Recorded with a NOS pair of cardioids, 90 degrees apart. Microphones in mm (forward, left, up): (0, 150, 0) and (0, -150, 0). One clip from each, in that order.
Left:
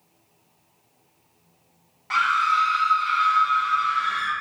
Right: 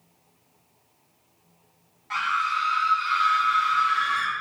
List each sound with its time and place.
2.1 s a scream: 35° left, 0.8 m; by 4.3 s 70° right, 0.8 m